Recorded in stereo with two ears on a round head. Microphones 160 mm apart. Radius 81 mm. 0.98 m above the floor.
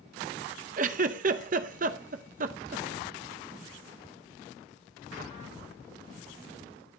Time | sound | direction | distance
0.8 | a giggle | 45° right (ahead or behind) | 0.7 m